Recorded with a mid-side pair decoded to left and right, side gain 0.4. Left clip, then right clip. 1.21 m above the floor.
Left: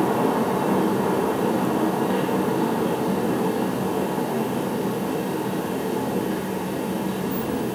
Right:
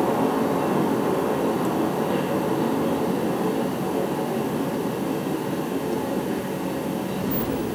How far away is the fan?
About 1.7 m.